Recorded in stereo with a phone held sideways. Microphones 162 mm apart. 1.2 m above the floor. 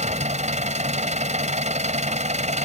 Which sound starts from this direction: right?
An engine running, at 0.0 s.